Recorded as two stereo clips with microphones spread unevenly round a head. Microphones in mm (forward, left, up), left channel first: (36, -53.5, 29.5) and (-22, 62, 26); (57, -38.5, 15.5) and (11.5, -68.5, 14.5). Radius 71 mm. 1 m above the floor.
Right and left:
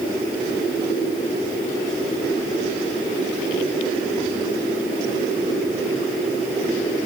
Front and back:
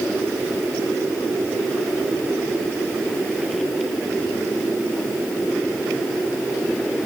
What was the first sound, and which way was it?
Only background noise.